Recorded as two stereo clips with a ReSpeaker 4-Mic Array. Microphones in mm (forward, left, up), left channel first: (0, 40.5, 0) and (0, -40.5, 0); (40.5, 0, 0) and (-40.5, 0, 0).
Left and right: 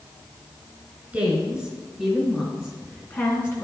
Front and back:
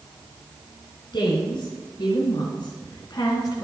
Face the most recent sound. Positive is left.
turn(degrees=35)